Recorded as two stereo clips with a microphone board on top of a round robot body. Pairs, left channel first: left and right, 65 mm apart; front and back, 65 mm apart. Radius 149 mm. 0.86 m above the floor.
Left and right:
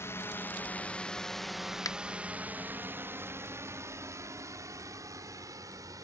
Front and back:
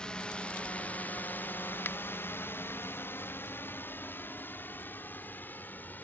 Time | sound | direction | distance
0.0 | a drone | 70° left | ?
1.9 | a finger snap | 60° left | ?